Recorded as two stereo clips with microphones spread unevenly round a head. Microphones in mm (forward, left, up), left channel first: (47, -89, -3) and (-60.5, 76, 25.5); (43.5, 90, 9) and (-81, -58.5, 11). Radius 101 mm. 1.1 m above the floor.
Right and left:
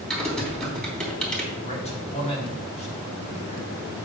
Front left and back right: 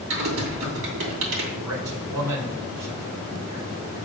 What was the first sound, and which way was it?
Typing on a keyboard, 145° right.